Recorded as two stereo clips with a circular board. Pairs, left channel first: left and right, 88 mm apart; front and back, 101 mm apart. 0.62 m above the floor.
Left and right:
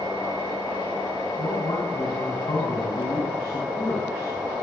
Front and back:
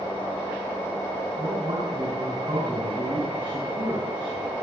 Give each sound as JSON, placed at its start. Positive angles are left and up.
{"t": 1.4, "sound": "a man speaking", "azimuth_deg": 135, "distance_m": 7.5}